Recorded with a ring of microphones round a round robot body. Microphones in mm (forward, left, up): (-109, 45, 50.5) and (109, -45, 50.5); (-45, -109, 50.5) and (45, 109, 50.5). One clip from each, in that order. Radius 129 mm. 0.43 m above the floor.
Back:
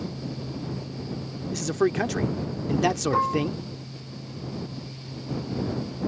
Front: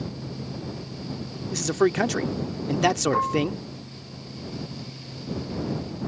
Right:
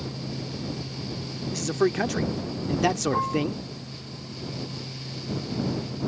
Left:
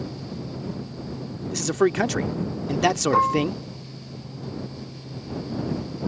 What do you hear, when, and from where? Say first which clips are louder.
1.5 s a man speaking: front 2 dB, left 3 dB; 15° left
3.1 s dishes clattering: even, left 6 dB; 75° left